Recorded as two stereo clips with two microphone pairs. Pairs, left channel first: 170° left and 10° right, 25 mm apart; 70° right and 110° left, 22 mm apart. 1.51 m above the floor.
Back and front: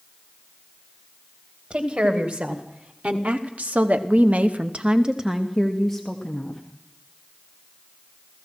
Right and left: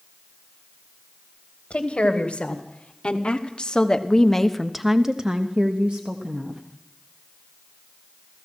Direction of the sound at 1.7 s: 40° right.